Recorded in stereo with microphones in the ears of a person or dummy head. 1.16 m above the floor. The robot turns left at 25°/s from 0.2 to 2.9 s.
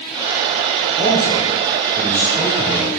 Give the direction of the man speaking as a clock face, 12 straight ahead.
5 o'clock.